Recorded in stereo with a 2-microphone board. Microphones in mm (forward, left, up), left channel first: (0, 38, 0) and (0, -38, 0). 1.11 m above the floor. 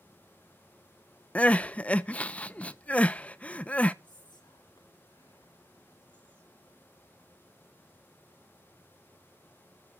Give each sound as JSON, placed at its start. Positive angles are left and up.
{"t": 1.4, "sound": "crying", "side_deg": 20, "distance_m": 0.5}
{"t": 4.0, "sound": "whispering", "side_deg": 75, "distance_m": 3.5}